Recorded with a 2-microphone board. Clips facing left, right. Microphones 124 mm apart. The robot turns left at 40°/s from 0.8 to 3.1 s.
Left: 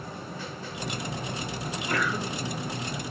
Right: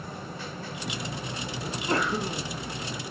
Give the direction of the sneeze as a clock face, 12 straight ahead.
4 o'clock.